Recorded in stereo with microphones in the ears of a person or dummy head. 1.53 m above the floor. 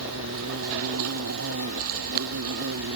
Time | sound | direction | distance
0.0 | an insect | 80° right | ?